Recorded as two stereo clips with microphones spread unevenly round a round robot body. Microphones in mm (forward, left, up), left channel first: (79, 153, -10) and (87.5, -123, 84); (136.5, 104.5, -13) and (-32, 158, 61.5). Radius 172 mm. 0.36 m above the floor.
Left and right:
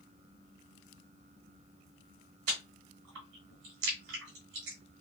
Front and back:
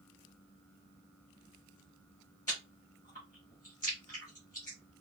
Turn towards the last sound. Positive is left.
turn(degrees=-85)